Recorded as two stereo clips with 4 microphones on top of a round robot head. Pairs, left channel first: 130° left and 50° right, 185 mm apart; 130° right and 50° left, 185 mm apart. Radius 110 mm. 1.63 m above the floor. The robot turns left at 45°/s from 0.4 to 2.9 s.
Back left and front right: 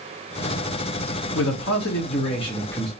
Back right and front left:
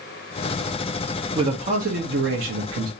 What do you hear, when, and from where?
1.4 s a man speaking: 115° left, 0.7 m; by 2.9 s 45° left, 0.7 m